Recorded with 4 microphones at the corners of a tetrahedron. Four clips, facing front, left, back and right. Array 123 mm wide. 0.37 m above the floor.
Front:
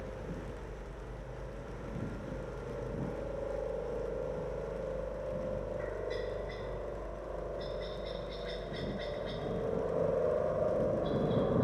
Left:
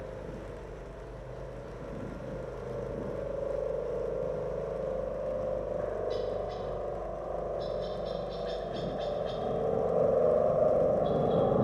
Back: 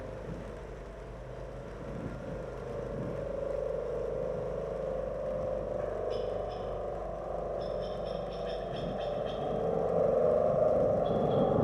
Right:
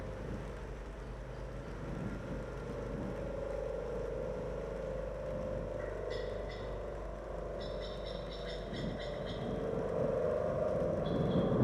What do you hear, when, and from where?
0.0 s a helicopter: 110° left; by 11.7 s 120° left